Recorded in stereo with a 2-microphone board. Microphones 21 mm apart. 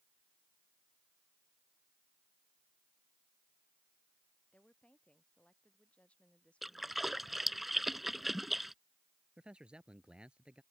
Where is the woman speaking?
60° left (ahead or behind).